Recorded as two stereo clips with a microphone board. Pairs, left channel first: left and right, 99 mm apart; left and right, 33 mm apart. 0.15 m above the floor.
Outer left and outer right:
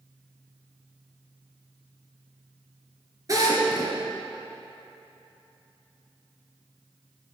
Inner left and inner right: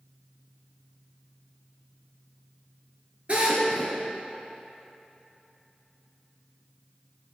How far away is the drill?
About 2.5 m.